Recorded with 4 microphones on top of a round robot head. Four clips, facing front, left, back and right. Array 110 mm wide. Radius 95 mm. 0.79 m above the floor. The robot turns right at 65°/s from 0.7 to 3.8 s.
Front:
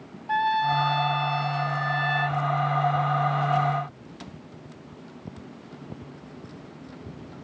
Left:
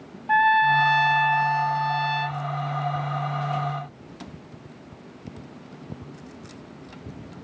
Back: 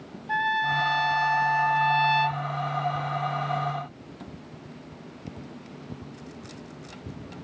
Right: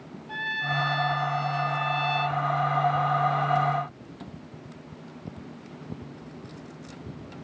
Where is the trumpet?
75° left, 0.5 m; by 2.4 s 175° right, 0.5 m.